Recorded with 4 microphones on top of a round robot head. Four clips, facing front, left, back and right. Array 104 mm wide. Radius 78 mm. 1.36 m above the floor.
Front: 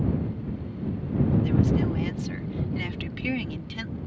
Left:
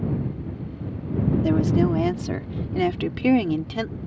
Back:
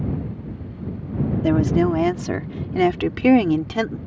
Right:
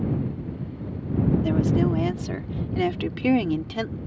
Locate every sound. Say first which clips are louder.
1.4 s a woman speaking: left 2 dB, back 6 dB; 170° left; by 4.0 s straight behind